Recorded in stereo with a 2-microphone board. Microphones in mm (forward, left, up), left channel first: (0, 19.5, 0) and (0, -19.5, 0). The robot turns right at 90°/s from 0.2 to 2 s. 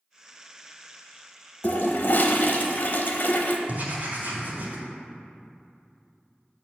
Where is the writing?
50° right (ahead or behind), 1.7 m.